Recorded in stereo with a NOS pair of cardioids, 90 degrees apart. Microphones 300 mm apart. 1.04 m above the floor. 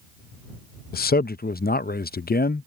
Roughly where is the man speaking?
Ahead left.